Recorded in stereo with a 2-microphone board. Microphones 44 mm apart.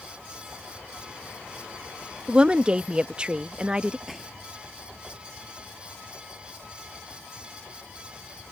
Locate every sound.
2.3 s a woman speaking: 20° right (ahead or behind)
4.1 s a gunshot: centre (ahead or behind)